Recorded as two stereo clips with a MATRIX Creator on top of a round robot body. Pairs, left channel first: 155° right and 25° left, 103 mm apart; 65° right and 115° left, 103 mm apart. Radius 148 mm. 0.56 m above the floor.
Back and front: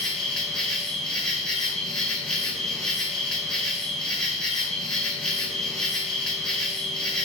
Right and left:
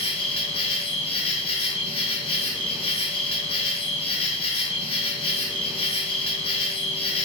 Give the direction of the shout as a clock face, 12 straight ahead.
No shout in this recording.